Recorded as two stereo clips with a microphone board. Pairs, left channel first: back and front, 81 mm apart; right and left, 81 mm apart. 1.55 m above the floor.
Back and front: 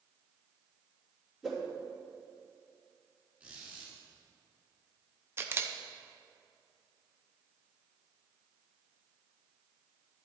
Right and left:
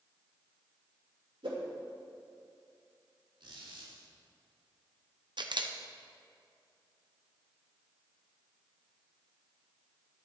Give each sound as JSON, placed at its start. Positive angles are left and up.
{"t": 1.4, "sound": "a whoosh", "azimuth_deg": 85, "distance_m": 2.5}
{"t": 3.4, "sound": "a squeak", "azimuth_deg": 70, "distance_m": 3.5}
{"t": 5.4, "sound": "a camera shutter", "azimuth_deg": 60, "distance_m": 0.8}